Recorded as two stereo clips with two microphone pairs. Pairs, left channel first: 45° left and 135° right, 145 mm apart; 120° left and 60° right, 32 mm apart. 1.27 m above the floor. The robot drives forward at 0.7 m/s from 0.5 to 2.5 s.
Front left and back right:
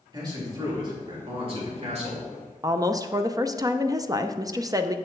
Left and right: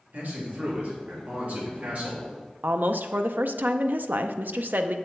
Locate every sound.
0.1 s a man speaking: 75° right, 3 m; by 2.5 s 105° right, 3 m
2.6 s a woman speaking: 70° right, 0.5 m